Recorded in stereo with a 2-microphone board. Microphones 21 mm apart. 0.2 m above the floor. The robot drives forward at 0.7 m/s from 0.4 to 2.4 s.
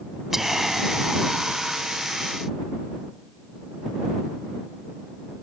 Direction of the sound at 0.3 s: 15° right (ahead or behind).